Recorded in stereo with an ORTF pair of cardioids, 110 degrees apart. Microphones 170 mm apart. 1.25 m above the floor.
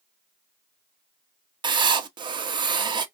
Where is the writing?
25° right, 0.5 m.